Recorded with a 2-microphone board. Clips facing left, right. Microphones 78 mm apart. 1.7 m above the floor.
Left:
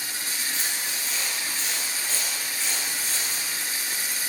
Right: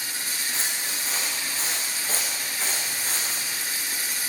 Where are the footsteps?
35° right (ahead or behind), 6.5 m; by 3.5 s 50° right (ahead or behind), 7 m.